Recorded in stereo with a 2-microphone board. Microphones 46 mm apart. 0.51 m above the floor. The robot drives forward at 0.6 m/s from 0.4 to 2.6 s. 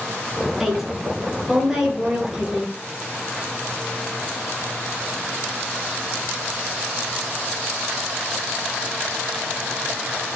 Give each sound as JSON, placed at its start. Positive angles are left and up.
{"t": 0.6, "sound": "a woman speaking", "side_deg": -10, "distance_m": 7.0}